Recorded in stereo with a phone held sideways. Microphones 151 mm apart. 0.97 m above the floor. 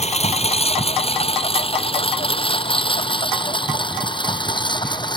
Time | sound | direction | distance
0.0 | a lawn mower | 45° left (ahead or behind) | ?